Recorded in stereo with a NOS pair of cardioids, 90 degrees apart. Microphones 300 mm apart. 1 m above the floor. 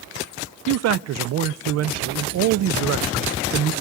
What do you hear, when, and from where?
0.7 s a man speaking: 60° right, 0.5 m